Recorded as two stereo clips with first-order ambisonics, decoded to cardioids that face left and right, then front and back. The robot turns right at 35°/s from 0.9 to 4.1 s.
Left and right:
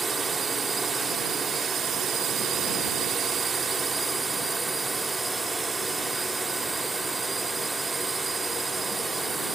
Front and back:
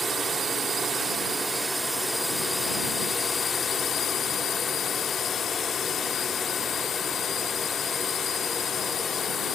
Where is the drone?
140° right; by 9.6 s 25° right.